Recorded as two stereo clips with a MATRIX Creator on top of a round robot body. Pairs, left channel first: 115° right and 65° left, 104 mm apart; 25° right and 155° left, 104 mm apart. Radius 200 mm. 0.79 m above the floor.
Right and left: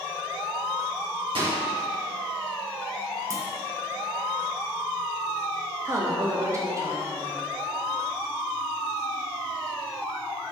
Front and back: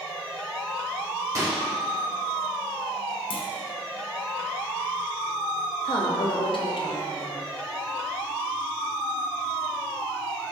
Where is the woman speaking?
10° left, 1.4 m.